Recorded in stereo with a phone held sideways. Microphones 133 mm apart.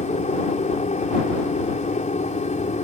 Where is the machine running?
70° left (ahead or behind).